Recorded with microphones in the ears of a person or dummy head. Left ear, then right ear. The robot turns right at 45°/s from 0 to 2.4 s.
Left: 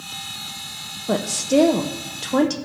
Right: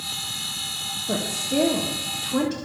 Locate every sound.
1.1 s a woman speaking: 50° left, 0.5 m; by 2.5 s 110° left, 0.5 m